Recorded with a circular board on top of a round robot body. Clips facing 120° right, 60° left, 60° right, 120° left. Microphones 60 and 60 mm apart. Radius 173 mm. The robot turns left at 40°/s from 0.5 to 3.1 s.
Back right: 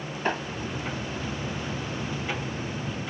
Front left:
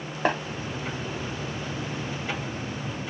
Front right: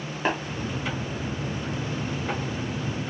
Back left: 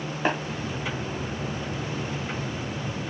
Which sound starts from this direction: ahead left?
Tapping, at 0.2 s.